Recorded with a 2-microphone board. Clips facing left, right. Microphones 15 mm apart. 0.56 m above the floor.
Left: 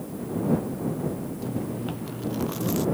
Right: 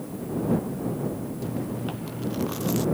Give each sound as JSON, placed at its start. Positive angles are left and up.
{"t": 1.4, "sound": "chewing", "side_deg": -5}